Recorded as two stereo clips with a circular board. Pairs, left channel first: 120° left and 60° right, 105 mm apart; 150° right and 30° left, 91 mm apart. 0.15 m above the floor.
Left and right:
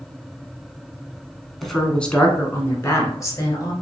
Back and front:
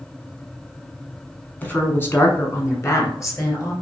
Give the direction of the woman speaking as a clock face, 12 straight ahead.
5 o'clock.